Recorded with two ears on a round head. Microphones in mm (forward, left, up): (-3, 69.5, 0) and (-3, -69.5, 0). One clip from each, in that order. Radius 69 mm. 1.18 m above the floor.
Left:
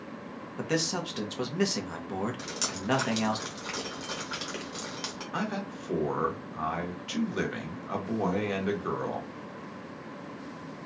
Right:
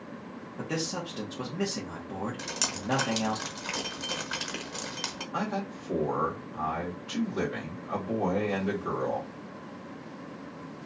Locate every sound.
0.6 s a man speaking: 40° left (ahead or behind), 0.9 m
2.4 s dripping: 20° right (ahead or behind), 0.9 m
5.3 s a man speaking: 50° left (ahead or behind), 1.3 m